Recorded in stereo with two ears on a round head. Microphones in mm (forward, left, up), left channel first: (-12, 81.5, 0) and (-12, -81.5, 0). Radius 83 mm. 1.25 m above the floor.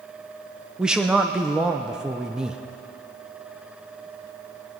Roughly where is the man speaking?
Centre.